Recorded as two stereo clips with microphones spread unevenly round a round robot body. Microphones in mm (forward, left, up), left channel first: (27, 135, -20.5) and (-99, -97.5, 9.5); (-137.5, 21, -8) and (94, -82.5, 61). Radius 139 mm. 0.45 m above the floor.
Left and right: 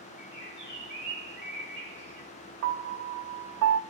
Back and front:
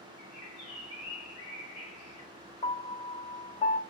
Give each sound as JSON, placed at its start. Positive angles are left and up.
{"t": 0.2, "sound": "a bird", "azimuth_deg": 150, "distance_m": 2.0}
{"t": 2.6, "sound": "a piano", "azimuth_deg": -150, "distance_m": 0.5}